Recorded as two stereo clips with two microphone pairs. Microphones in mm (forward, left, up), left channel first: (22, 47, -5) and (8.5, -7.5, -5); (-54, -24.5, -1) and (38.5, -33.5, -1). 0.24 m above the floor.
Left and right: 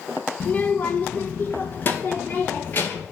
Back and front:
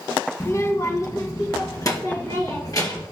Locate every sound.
0.4 s a child speaking: 125° left, 0.7 m